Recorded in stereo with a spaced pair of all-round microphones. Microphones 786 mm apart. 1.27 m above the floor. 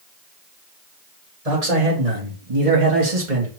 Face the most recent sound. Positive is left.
turn(degrees=-75)  # may be behind; listen again after turning